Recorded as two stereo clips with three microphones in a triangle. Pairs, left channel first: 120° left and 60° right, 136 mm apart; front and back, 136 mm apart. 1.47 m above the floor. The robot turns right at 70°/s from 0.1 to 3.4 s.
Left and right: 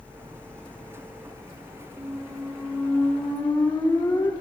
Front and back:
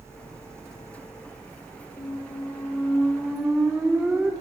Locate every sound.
2.0 s a squeak: 5° left, 0.5 m; by 4.3 s 105° left, 0.5 m